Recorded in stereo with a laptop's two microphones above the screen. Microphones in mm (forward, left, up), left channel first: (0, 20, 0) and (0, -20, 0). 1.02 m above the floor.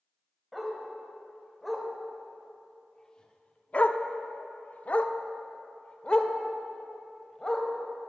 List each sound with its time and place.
0.5 s a dog barking: centre (ahead or behind), 2 m; by 7.7 s 20° left (ahead or behind), 2.5 m